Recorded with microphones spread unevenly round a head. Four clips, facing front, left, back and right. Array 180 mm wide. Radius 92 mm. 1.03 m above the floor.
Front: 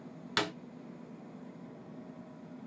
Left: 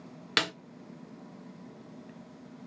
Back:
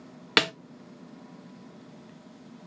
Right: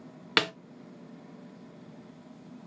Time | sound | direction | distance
0.4 | a snare drum | 155° right | 0.9 m